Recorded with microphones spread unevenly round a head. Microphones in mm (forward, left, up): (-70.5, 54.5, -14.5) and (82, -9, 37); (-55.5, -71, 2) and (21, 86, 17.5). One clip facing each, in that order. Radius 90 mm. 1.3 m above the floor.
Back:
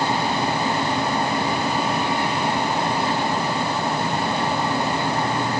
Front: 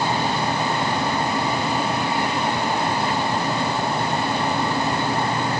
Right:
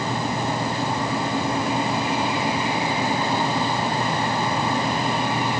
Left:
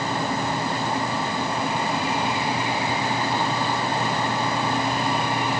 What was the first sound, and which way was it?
Only background noise.